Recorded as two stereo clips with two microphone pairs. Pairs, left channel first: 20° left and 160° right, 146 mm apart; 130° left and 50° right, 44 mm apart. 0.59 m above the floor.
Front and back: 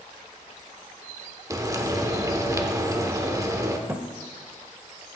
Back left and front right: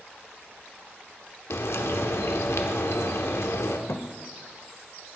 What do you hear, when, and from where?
1.5 s frying: 135° left, 0.8 m
3.9 s a thud: 130° left, 0.6 m